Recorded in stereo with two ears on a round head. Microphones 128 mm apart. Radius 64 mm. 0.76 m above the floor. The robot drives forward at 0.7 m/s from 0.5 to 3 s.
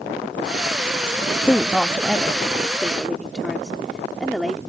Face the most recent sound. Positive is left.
turn(degrees=0)  # may be behind; listen again after turning